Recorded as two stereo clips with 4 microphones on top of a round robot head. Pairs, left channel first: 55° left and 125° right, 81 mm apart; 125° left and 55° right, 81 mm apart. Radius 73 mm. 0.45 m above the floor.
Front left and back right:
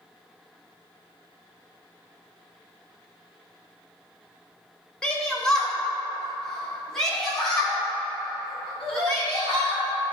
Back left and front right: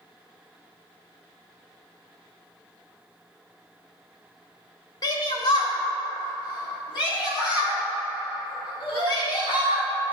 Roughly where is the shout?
Behind left.